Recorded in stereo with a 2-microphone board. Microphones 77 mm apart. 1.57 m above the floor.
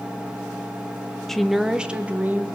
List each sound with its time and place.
1.3 s a woman speaking: 5° left (ahead or behind), 1.1 m; by 2.5 s 25° right (ahead or behind), 1.7 m